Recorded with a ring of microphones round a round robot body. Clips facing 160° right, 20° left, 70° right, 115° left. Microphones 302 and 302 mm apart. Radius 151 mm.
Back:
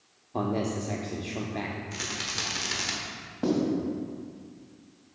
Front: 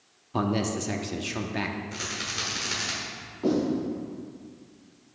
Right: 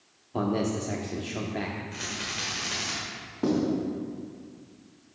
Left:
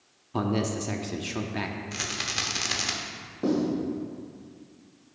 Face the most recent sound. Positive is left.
turn(degrees=-145)